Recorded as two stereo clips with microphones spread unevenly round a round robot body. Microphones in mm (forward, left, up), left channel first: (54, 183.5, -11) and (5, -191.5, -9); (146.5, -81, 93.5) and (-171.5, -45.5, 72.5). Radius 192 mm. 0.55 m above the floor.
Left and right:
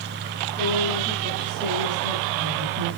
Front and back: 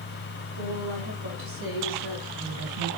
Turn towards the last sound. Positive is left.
turn(degrees=180)